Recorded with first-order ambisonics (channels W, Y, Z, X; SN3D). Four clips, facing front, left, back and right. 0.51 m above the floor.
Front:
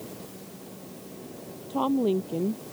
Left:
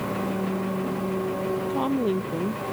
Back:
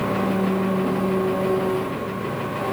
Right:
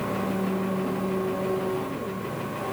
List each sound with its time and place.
0.0 s an engine running: straight behind
1.7 s a woman speaking: 40° left